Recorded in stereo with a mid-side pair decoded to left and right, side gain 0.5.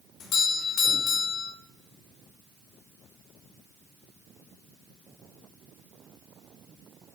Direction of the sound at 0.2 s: 55° left.